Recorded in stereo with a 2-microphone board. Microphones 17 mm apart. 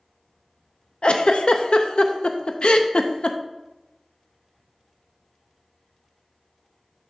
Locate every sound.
1.0 s a giggle: 70° left (ahead or behind), 0.5 m